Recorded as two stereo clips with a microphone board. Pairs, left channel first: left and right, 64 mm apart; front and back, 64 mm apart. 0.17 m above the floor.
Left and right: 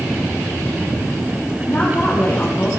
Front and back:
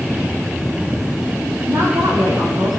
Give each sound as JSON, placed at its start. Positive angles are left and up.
{"t": 1.7, "sound": "a woman speaking", "azimuth_deg": 145, "distance_m": 5.0}